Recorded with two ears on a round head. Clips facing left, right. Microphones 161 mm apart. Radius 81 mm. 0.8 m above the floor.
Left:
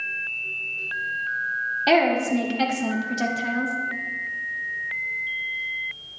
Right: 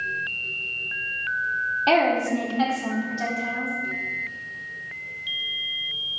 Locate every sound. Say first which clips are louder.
1.9 s a woman speaking: left 1 dB; 15° left (ahead or behind), 1.7 m; by 3.8 s 55° left (ahead or behind), 1.3 m